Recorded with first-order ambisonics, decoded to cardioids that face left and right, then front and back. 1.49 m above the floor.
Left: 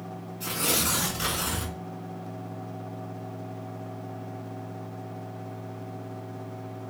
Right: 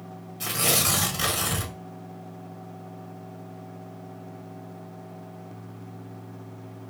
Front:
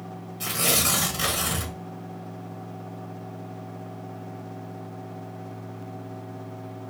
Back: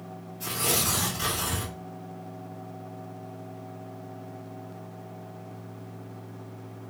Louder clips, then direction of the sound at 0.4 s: Right 3 dB, front 4 dB; 60° right.